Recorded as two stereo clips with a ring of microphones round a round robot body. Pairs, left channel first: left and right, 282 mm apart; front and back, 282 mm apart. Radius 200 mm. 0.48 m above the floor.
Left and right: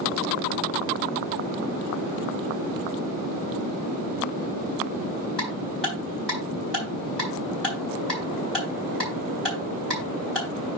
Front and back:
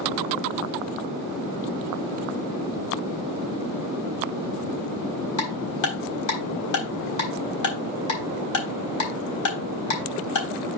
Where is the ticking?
Straight ahead, 4 m.